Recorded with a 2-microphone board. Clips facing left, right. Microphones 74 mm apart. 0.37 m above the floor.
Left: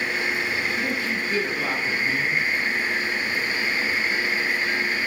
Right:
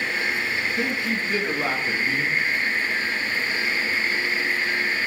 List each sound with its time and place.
0.8 s a man speaking: 50° right (ahead or behind), 4.5 m